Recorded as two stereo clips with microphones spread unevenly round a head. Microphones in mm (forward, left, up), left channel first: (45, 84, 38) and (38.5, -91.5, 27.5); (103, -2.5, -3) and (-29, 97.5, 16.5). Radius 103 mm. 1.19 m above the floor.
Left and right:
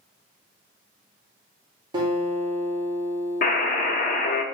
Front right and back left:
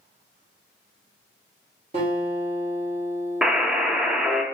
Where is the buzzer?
60° left, 0.5 m.